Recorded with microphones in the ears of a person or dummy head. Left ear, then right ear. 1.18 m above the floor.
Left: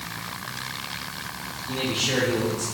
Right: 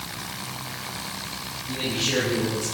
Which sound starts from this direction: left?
A man speaking, at 1.7 s.